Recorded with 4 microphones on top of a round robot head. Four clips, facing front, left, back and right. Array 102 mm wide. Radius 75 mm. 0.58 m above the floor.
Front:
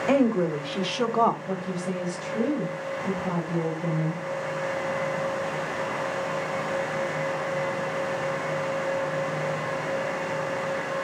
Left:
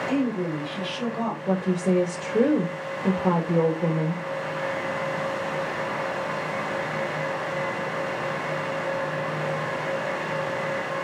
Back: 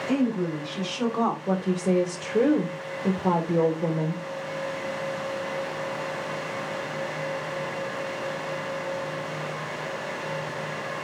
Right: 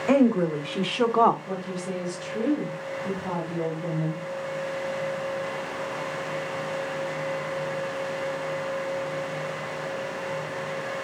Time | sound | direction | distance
0.1 | a woman speaking | 50° right | 2.5 m
1.5 | a woman speaking | 135° left | 2.5 m